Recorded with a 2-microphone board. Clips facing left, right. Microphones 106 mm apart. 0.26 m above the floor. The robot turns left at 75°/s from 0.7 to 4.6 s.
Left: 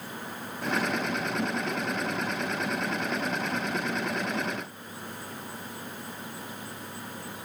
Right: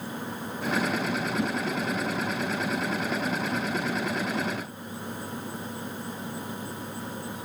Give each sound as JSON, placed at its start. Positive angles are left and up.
{"t": 1.4, "sound": "a whoosh", "side_deg": -25, "distance_m": 6.5}